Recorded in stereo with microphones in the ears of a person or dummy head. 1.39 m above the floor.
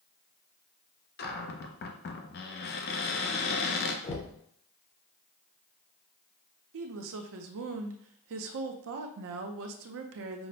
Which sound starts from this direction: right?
A woman speaking, at 6.7 s.